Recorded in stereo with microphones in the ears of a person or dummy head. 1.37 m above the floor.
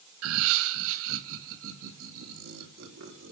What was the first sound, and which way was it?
Laughter, 80° right.